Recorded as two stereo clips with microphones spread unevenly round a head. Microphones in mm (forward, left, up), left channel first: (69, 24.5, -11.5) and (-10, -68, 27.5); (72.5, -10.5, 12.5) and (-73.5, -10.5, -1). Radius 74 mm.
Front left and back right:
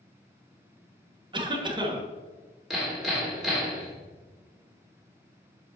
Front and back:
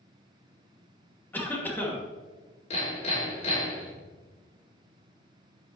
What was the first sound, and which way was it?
A cough, 80° right.